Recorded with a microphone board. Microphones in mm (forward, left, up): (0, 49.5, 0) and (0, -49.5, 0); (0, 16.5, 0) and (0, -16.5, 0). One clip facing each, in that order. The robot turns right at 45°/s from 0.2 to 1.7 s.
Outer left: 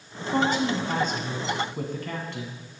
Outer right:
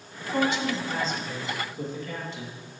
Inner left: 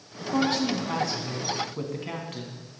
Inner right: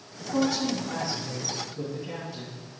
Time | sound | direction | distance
0.3 | a woman speaking | 45° left | 2.5 m